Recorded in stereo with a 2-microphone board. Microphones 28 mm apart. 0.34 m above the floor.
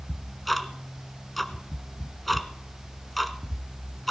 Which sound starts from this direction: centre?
Ticking, at 0.1 s.